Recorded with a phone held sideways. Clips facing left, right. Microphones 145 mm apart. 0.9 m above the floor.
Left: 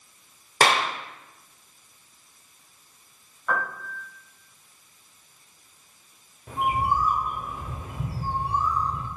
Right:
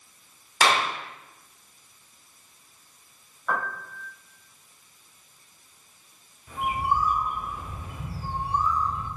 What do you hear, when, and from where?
0.6 s a clap: 60° left (ahead or behind), 1.9 m
3.5 s a piano: centre (ahead or behind), 3.5 m
6.5 s a bird: 60° left (ahead or behind), 1.7 m